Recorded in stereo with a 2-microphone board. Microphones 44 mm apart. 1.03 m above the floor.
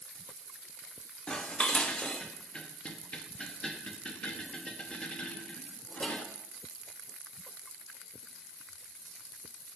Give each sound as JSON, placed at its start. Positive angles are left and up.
{"t": 1.3, "sound": "dishes clattering", "side_deg": 25, "distance_m": 0.9}